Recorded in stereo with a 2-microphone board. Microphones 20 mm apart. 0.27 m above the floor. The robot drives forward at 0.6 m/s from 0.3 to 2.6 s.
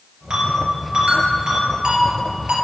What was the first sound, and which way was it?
A ringtone, 75° right (ahead or behind).